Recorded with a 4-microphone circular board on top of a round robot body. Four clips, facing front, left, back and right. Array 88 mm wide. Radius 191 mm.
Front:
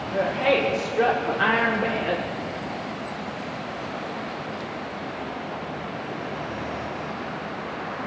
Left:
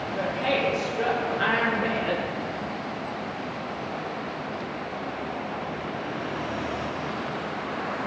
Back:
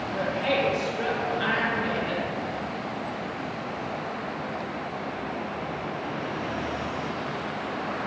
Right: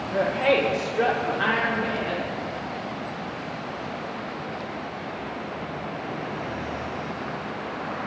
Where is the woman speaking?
65° right, 2 m; by 2.2 s 30° left, 1.8 m.